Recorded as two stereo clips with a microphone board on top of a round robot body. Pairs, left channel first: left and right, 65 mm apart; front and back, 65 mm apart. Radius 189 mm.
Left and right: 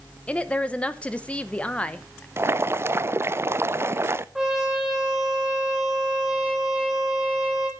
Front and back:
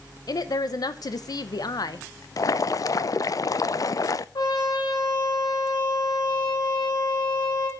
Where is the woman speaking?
20° left, 1.1 m.